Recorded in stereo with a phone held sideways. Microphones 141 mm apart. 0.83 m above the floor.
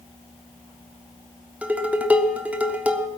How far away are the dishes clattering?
About 0.9 m.